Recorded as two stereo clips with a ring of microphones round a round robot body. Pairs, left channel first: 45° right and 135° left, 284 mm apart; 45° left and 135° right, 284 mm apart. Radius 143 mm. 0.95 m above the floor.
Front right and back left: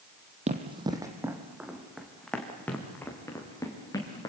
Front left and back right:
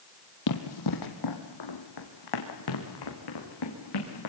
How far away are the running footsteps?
About 2 m.